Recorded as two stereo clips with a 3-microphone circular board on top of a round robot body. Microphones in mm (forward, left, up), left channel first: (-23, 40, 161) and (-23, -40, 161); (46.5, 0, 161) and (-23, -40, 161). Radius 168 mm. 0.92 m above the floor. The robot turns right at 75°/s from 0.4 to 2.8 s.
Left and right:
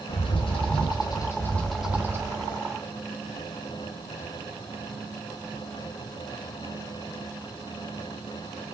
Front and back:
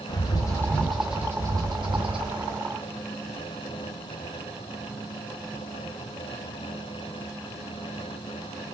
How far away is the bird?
About 1.9 m.